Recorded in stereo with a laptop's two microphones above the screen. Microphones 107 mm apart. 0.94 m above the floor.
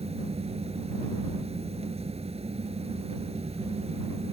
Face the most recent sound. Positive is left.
turn(degrees=-70)  # may be behind; listen again after turning